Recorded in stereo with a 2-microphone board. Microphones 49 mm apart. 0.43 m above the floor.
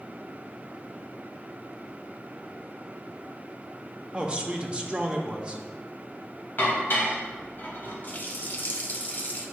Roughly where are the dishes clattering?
Left.